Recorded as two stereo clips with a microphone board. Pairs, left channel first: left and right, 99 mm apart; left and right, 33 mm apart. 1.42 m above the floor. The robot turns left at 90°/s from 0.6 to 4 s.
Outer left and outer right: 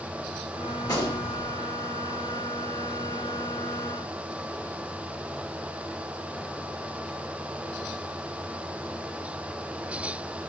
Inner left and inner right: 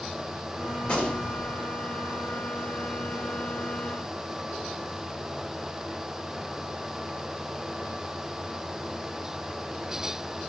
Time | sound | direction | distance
0.8 | a gunshot | 145° left | 2 m